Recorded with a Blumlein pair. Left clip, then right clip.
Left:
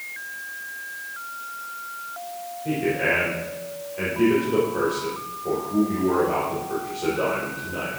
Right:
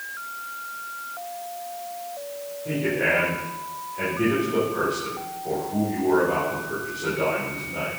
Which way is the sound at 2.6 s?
15° left.